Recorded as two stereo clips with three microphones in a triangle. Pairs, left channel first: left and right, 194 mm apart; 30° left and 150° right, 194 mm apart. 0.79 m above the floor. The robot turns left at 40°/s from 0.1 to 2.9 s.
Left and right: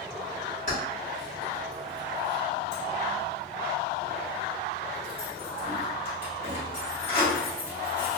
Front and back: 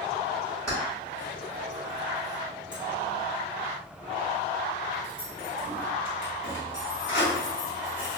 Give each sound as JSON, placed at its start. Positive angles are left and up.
{"t": 0.7, "sound": "keys jangling", "azimuth_deg": 105, "distance_m": 1.6}